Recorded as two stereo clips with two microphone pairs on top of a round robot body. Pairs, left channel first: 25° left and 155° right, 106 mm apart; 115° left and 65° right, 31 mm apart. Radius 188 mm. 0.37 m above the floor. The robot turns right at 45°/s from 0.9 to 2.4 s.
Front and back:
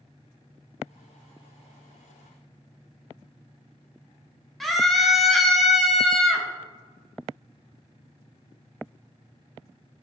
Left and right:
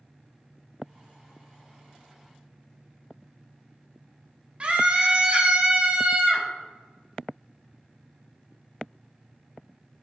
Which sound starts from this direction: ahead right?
A scream, at 4.6 s.